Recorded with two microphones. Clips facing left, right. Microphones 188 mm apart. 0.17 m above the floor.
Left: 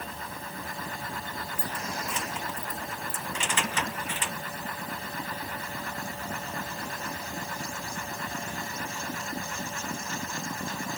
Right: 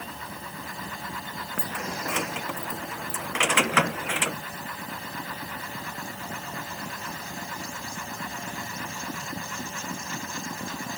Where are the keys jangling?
80° right; by 4.4 s 85° right.